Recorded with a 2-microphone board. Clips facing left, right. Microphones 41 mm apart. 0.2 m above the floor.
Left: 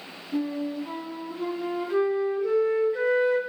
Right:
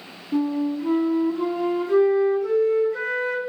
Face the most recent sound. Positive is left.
turn(degrees=-80)